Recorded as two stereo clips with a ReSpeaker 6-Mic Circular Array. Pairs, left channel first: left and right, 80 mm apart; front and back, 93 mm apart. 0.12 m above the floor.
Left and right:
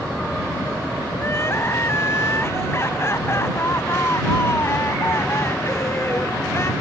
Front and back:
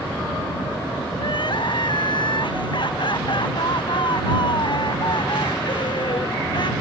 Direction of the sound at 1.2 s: 35° left.